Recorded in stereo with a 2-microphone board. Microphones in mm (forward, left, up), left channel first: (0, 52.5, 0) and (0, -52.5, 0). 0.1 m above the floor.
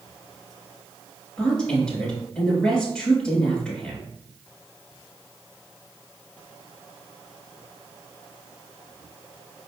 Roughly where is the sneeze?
No sneeze in this recording.